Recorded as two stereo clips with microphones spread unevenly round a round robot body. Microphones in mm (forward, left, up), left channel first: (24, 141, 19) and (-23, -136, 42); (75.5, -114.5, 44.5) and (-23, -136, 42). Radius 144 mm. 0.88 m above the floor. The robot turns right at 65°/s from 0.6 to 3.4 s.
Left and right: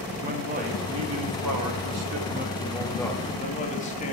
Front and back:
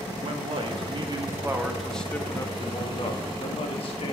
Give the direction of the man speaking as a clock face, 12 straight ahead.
5 o'clock.